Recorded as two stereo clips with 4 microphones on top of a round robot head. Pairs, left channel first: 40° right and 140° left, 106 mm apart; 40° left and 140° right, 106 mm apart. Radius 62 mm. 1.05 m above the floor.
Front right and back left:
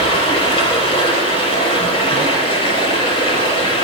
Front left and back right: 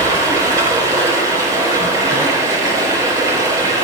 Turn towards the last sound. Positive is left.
turn(degrees=-80)